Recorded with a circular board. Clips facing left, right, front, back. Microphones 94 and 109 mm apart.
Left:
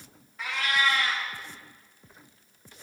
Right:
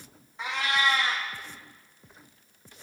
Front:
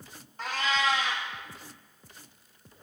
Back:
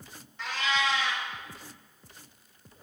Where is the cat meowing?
30° right, 1.1 m.